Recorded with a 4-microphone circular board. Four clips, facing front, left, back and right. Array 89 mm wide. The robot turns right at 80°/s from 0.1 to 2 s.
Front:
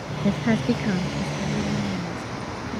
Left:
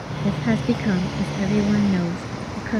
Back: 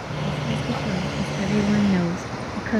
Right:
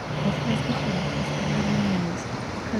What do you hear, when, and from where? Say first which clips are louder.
0.2 s a woman speaking: left 5 dB, front 6 dB; 15° left; by 2.8 s 160° left